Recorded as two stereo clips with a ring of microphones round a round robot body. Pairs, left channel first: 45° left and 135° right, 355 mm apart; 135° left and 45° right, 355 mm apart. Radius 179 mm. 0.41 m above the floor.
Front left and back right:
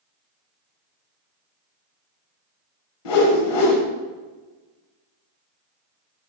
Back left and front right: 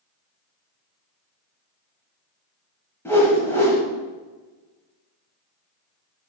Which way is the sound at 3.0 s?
50° left.